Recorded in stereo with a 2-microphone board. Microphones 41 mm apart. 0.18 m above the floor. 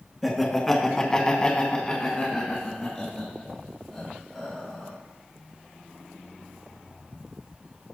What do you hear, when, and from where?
0.2 s laughter: 5° left (ahead or behind), 2 m; by 4.9 s 15° left (ahead or behind), 5.5 m